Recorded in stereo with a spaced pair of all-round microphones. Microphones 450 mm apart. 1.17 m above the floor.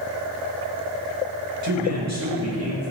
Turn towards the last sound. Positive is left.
turn(degrees=-30)  # may be behind; listen again after turning